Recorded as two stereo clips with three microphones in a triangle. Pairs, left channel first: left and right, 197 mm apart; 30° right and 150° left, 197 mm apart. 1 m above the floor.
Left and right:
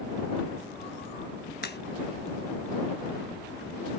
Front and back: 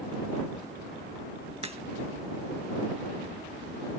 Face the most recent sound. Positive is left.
turn(degrees=100)